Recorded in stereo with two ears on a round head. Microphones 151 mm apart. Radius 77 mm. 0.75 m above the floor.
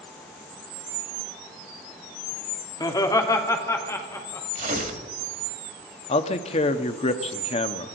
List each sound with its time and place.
2.8 s laughter: 25° left (ahead or behind), 1.6 m; by 4.5 s 15° left (ahead or behind), 3.5 m
4.5 s tearing paper: 45° right (ahead or behind), 1.9 m
6.1 s a man speaking: 40° left (ahead or behind), 1.0 m